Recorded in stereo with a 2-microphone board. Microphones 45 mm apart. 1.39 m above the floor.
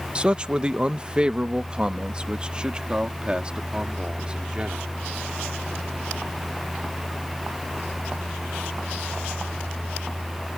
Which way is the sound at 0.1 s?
20° right (ahead or behind).